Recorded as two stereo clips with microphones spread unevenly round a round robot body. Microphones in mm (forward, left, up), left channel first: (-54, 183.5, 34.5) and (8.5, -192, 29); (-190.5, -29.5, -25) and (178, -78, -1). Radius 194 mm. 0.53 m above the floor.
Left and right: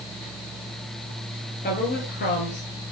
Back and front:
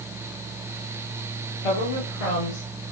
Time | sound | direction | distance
1.6 | a woman speaking | 170° left | 8.5 m